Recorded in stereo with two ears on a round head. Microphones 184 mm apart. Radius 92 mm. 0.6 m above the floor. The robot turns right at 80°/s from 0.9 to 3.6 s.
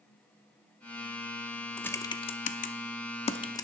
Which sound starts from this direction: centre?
Typing on a keyboard, at 1.8 s.